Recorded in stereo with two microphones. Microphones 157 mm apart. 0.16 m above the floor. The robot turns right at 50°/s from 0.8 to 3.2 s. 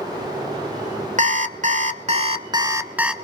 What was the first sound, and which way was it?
An alarm clock, 105° right.